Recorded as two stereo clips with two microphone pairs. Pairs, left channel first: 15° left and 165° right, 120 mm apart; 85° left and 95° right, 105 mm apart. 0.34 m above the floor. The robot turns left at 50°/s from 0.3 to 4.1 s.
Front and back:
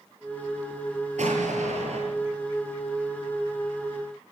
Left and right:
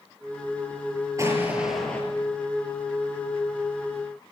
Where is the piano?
No piano in this recording.